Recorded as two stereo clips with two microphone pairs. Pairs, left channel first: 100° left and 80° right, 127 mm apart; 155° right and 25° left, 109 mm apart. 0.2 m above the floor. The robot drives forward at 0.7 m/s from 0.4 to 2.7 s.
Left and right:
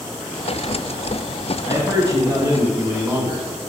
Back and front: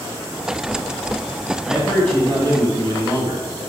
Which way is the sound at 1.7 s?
60° right.